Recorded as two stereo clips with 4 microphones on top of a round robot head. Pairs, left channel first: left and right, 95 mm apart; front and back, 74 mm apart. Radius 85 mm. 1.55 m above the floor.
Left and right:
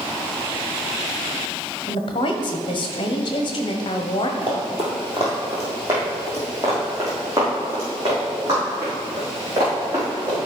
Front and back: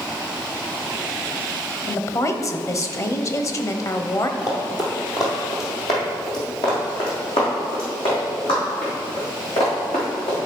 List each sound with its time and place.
1.9 s a woman speaking: 45° left, 1.0 m
4.4 s running footsteps: 20° right, 1.7 m